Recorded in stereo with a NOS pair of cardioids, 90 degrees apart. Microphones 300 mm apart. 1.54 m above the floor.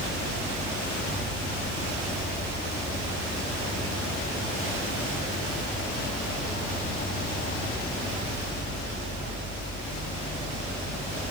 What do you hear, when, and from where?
0.0 s an insect: 30° left, 8.5 m